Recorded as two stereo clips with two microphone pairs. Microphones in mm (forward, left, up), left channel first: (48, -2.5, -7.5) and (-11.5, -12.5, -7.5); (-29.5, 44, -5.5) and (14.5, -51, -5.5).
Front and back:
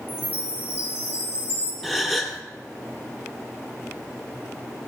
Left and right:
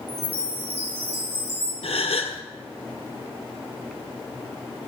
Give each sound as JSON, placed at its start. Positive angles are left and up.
{"t": 0.1, "sound": "a chime", "azimuth_deg": -45, "distance_m": 6.0}
{"t": 1.8, "sound": "a gasp", "azimuth_deg": 100, "distance_m": 1.5}